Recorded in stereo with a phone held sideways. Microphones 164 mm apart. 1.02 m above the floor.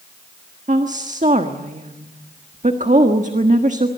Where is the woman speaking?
45° right (ahead or behind), 1.4 m.